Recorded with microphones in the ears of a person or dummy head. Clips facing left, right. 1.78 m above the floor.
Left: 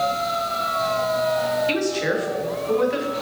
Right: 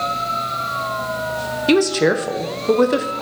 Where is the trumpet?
No trumpet in this recording.